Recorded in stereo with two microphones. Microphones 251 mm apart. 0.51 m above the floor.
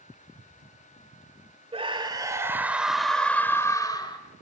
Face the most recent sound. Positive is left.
turn(degrees=20)  # may be behind; listen again after turning